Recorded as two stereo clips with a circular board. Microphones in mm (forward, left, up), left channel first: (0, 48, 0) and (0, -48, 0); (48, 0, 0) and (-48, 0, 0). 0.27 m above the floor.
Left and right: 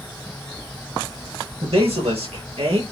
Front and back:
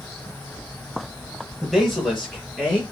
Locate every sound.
1.6 s a man speaking: 90° right, 6 m; by 2.8 s 85° right, 5.5 m